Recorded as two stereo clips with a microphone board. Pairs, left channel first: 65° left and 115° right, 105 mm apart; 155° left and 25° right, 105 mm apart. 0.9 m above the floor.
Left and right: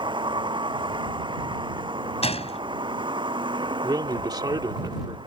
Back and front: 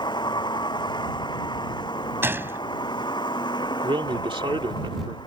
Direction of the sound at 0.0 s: 155° right.